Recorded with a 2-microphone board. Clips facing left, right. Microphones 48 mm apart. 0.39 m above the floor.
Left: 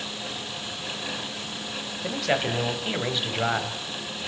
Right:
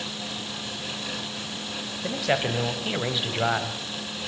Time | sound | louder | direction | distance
2.0 | a man speaking | even | centre (ahead or behind) | 1.8 m